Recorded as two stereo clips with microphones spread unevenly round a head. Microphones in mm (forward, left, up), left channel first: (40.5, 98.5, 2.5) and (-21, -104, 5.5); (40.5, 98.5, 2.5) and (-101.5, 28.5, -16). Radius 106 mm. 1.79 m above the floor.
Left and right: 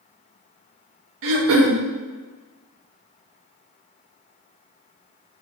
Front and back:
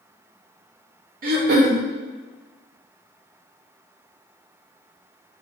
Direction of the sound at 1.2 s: 115° right.